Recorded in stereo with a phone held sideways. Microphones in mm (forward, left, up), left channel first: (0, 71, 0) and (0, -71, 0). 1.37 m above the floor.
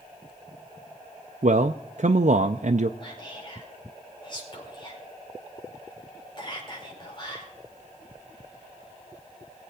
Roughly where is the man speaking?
Right.